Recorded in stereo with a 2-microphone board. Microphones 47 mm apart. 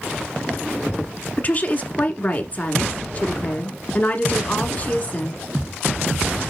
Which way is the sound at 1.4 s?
35° left (ahead or behind).